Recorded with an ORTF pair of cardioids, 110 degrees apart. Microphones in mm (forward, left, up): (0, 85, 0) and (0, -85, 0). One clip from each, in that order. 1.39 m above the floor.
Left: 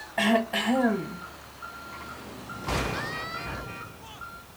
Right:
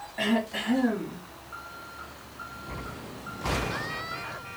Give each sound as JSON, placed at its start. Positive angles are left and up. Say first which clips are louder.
{"t": 0.2, "sound": "throat clearing", "louder": "left 4 dB", "azimuth_deg": 65, "distance_m": 1.3}